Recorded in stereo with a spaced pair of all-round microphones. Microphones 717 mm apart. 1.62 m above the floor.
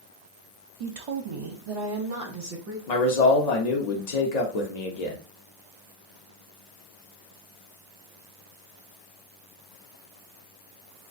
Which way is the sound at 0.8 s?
55° right (ahead or behind).